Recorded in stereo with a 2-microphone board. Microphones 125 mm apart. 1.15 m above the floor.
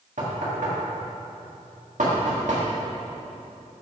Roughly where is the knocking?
Right.